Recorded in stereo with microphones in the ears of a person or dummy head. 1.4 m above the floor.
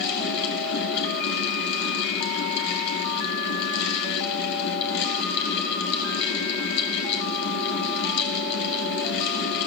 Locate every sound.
0.0 s a fan: 65° left (ahead or behind), 4.5 m